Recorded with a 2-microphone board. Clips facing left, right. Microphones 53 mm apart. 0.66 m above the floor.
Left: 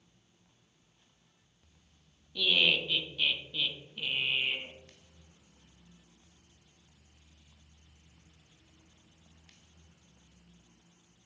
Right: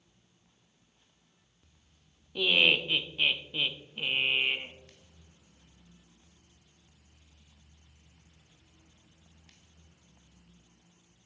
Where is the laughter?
35° right (ahead or behind), 0.7 m.